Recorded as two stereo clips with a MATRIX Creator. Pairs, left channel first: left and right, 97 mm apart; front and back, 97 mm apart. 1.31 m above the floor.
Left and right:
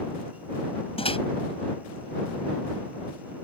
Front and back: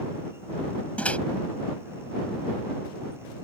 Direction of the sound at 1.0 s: 75° left.